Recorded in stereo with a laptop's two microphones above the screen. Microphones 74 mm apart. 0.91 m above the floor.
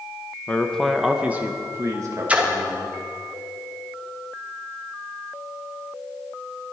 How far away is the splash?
About 1.2 m.